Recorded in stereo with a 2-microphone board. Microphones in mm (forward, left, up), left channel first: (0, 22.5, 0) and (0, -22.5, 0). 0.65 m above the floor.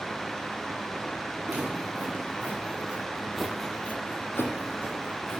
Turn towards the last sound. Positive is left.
turn(degrees=60)  # may be behind; listen again after turning